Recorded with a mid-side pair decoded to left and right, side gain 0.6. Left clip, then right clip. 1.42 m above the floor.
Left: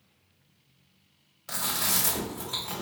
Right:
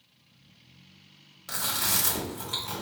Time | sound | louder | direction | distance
1.5 | chewing | even | 15° right | 2.0 m